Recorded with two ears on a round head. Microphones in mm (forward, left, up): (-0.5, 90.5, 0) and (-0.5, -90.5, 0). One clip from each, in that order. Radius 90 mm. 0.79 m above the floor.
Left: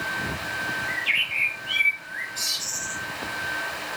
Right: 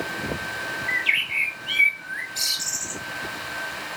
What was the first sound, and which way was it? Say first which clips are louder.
A bird: right 3 dB; 50° right (ahead or behind).